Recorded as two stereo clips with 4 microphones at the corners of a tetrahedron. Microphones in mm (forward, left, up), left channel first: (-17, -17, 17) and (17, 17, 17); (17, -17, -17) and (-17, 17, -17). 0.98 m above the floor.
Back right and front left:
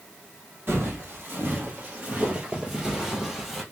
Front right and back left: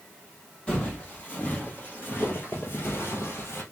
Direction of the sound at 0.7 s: 20° left.